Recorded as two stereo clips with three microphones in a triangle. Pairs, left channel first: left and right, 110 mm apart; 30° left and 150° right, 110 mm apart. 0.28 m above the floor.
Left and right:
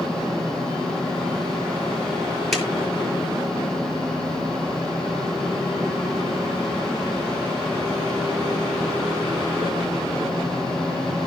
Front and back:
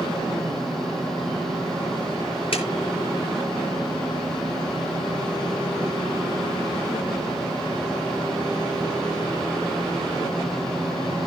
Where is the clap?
Straight ahead, 5 m.